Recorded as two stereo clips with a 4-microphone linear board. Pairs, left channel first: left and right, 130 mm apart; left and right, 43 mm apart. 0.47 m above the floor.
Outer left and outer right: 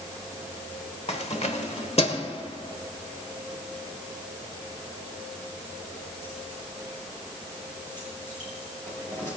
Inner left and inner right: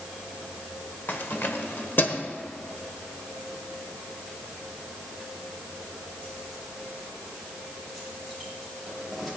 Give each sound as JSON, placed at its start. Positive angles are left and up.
{"t": 1.1, "sound": "keys jangling", "side_deg": 55, "distance_m": 1.3}